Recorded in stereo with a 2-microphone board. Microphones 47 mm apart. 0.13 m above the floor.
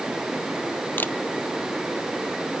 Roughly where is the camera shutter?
Left.